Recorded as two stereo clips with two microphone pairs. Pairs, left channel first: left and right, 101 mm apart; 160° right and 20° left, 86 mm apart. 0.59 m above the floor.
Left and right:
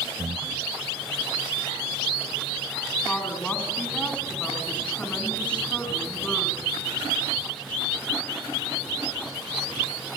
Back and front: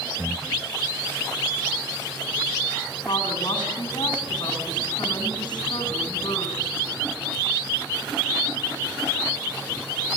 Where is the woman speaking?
170° left, 5.5 m.